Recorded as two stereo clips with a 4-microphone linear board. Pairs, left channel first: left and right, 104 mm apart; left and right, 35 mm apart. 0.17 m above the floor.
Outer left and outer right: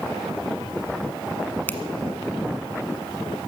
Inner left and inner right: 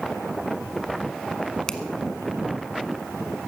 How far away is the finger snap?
About 1.3 m.